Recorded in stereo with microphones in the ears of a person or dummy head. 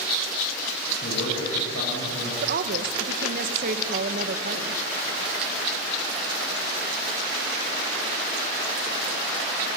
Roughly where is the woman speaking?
Right.